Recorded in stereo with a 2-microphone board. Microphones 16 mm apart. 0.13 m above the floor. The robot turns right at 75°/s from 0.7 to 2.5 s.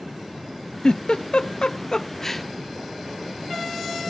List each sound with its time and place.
0.8 s a giggle: 50° left (ahead or behind), 0.5 m; by 2.5 s 5° left (ahead or behind), 0.5 m